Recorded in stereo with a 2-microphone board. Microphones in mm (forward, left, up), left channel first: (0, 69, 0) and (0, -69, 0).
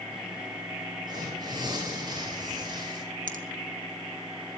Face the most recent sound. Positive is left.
turn(degrees=-75)  # may be behind; listen again after turning